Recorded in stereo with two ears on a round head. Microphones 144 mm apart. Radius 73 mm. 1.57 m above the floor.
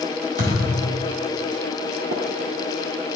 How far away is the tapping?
About 1.8 m.